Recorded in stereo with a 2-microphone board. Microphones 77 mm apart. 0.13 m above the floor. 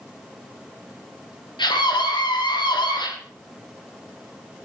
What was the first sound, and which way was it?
A scream, 75° left (ahead or behind).